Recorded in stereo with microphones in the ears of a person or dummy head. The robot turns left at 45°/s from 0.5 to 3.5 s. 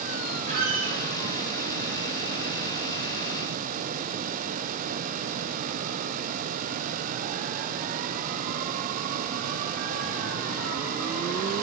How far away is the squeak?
About 1.9 m.